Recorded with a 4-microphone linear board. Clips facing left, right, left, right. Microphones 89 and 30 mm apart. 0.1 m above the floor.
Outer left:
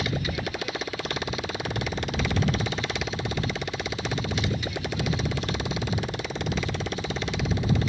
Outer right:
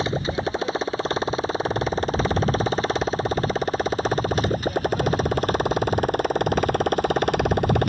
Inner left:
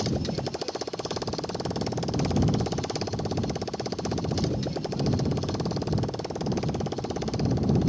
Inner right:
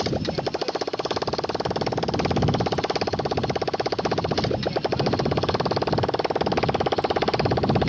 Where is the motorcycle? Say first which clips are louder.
Outer right 5 dB, inner right 4 dB; 30° right (ahead or behind); by 7.9 s 55° right (ahead or behind).